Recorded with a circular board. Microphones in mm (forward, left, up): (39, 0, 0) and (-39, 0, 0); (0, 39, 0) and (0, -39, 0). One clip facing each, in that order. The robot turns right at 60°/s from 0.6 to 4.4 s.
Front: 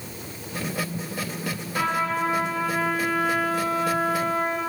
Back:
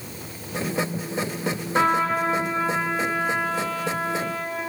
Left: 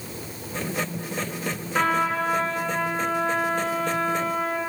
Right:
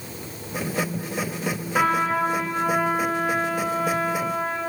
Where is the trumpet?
175° right, 2 m; by 4.6 s 15° right, 2 m.